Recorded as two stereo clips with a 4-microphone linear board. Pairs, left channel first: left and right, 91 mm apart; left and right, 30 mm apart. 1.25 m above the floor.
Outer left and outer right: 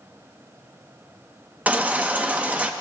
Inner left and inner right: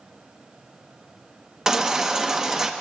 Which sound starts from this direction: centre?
A baby crying, at 1.7 s.